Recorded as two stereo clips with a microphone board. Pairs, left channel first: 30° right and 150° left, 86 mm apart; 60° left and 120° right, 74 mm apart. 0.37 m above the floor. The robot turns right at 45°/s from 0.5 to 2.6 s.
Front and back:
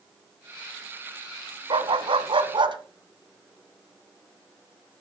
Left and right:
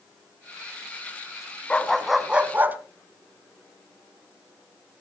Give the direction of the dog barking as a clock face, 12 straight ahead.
7 o'clock.